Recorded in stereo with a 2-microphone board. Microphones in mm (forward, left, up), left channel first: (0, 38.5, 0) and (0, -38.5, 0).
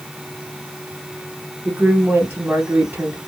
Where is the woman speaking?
25° right (ahead or behind), 3 m.